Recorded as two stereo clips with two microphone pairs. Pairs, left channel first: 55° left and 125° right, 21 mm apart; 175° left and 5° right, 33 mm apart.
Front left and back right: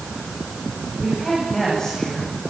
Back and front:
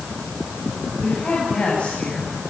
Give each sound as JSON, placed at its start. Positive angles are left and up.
{"t": 1.0, "sound": "a woman speaking", "azimuth_deg": 120, "distance_m": 10.0}